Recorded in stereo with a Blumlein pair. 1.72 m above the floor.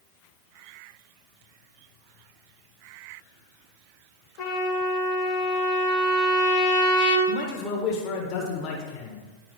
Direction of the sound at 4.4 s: 45° left.